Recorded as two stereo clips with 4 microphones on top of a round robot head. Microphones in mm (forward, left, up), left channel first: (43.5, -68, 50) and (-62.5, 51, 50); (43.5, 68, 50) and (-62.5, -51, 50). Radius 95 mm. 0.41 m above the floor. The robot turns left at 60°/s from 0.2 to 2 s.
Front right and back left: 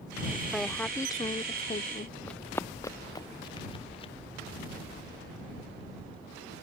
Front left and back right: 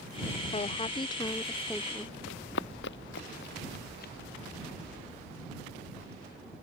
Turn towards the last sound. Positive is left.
turn(degrees=10)